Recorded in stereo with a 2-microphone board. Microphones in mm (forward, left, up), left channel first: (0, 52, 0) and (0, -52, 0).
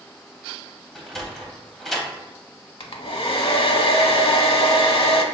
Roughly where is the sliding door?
Centre.